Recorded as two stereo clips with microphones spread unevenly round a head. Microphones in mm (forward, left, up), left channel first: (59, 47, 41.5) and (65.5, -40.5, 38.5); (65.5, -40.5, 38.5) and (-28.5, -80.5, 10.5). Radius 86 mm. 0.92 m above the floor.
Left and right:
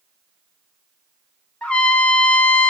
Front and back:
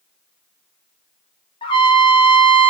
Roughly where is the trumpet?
Ahead left.